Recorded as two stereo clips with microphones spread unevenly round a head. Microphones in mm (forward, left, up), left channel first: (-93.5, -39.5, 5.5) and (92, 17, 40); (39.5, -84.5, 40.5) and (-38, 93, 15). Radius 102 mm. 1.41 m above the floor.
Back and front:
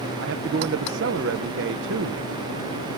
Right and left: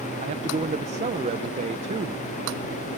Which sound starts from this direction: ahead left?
A man speaking, at 0.2 s.